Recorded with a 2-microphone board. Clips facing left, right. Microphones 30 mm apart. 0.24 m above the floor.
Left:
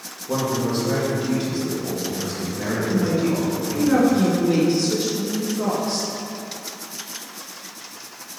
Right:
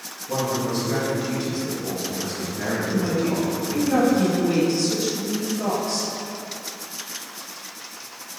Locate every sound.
0.3 s a man speaking: 25° left (ahead or behind), 1.7 m; by 3.9 s 40° right (ahead or behind), 1.4 m
2.9 s a woman speaking: 25° left (ahead or behind), 1.9 m